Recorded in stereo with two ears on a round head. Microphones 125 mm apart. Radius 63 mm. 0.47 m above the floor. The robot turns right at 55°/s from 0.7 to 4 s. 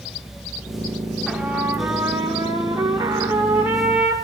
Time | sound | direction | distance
1.3 | a trumpet | 5° right (ahead or behind) | 1.0 m